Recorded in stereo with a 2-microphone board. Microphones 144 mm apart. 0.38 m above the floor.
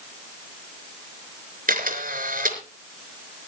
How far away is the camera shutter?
About 4 m.